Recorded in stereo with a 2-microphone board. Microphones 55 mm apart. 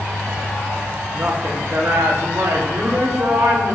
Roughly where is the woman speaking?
Right.